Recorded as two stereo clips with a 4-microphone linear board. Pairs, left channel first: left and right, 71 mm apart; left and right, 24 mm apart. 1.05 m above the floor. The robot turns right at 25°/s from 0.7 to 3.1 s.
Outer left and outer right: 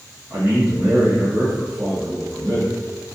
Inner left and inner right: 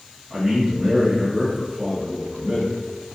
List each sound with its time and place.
0.3 s a man speaking: 125° right, 1.3 m; by 2.8 s 75° right, 1.3 m